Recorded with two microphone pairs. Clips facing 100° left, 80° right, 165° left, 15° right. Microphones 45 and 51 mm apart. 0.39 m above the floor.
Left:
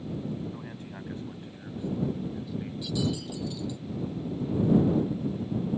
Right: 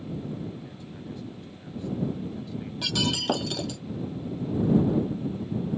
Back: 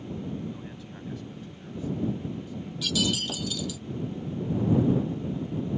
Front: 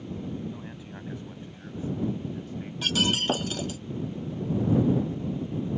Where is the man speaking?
60° left; by 2.7 s 10° left.